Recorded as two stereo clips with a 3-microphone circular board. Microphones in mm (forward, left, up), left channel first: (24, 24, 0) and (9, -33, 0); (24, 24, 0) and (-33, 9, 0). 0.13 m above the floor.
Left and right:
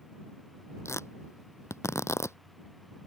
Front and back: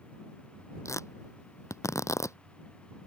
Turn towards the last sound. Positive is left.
turn(degrees=40)